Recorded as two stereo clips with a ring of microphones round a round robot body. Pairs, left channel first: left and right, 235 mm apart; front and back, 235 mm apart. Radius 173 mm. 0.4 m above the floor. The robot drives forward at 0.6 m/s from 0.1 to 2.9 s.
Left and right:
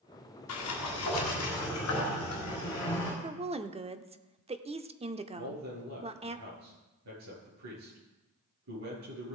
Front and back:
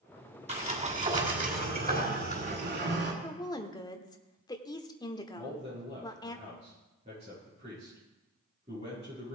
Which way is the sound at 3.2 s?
55° right.